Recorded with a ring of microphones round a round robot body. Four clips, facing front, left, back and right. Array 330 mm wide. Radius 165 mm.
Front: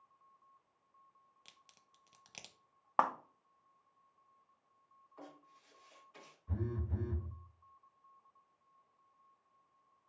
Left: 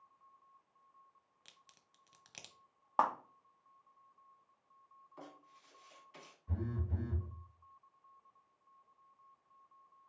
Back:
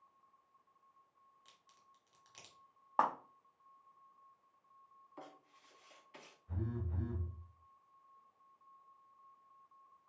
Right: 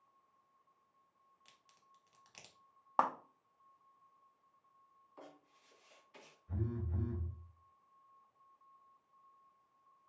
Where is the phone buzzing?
50° left, 1.2 m.